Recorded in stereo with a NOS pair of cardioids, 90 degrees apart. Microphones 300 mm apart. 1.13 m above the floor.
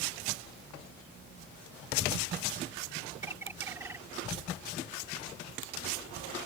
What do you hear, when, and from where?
3.2 s a bird: 10° right